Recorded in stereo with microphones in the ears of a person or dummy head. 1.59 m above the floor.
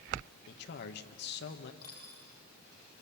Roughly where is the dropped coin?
Left.